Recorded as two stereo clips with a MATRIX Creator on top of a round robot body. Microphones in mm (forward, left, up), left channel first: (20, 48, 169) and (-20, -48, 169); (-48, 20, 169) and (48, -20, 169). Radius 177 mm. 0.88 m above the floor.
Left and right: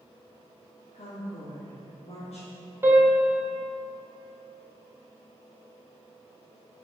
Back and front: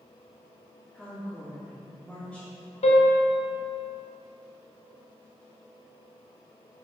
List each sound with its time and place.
0.9 s a woman speaking: 75° left, 3.5 m
2.8 s a piano: straight behind, 1.5 m